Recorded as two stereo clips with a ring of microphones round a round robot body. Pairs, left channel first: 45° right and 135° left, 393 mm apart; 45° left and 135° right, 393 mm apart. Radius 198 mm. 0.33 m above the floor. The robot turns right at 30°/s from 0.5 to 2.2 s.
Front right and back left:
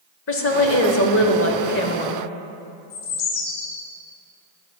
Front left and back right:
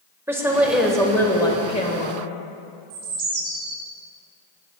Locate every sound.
0.3 s a woman speaking: 55° right, 1.0 m; by 2.2 s 5° right, 1.0 m
2.9 s a bird: 80° right, 2.5 m